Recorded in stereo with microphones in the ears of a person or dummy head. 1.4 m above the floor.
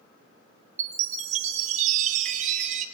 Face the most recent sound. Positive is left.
turn(degrees=-45)  # may be behind; listen again after turning